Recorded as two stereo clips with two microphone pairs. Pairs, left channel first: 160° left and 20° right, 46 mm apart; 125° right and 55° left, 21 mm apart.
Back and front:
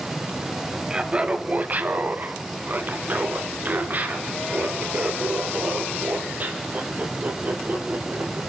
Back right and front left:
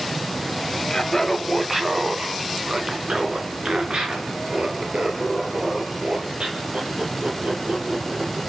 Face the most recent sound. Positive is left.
turn(degrees=30)